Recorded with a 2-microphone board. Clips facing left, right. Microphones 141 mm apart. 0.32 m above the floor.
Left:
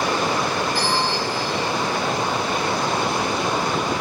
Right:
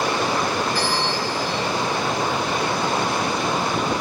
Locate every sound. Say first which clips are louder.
0.8 s a bell: left 1 dB; 45° right (ahead or behind), 7.5 m